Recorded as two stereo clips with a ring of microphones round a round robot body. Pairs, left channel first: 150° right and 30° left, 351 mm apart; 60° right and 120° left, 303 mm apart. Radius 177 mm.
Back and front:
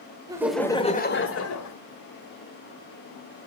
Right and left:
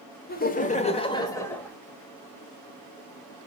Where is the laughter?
40° right, 1.5 m; by 1.8 s 145° right, 1.9 m.